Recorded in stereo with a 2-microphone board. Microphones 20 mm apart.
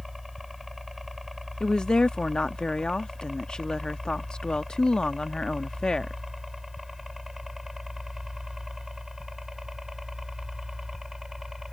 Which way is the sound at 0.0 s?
10° right (ahead or behind).